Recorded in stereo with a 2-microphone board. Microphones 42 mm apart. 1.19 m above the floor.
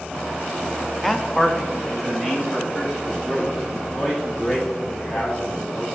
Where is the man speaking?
5° left (ahead or behind), 0.6 m; by 5.9 s 5° right (ahead or behind), 4.5 m.